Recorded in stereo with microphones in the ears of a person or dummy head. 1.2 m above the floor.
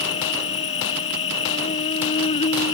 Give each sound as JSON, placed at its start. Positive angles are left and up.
{"t": 0.0, "sound": "an insect", "side_deg": 35}